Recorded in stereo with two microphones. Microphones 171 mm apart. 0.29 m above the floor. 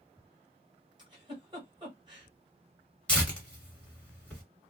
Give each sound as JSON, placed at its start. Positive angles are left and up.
{"t": 1.0, "sound": "a giggle", "side_deg": -25, "distance_m": 1.3}
{"t": 3.1, "sound": "tearing paper", "side_deg": 5, "distance_m": 1.3}